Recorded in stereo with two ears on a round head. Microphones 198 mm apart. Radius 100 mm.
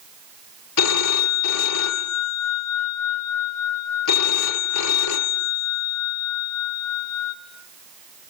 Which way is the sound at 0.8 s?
85° left.